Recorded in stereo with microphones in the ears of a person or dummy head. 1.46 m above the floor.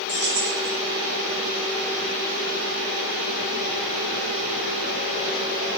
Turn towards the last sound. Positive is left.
turn(degrees=-35)  # may be behind; listen again after turning